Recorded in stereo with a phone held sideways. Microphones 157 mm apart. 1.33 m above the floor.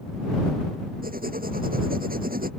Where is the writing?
80° right.